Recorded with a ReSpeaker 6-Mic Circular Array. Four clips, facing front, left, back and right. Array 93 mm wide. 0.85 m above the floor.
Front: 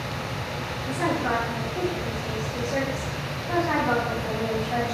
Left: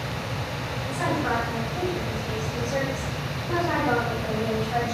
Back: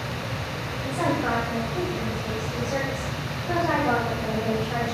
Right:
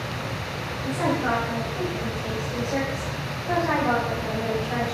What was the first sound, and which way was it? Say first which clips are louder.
A woman speaking: right 2 dB, back 1 dB; 155° right.